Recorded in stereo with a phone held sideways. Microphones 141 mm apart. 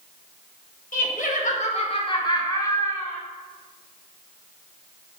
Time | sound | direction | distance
0.9 | laughter | 70° left (ahead or behind) | 1.5 m